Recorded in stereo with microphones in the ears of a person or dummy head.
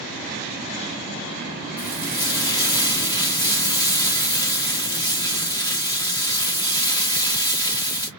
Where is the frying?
15° left (ahead or behind), 1.2 m.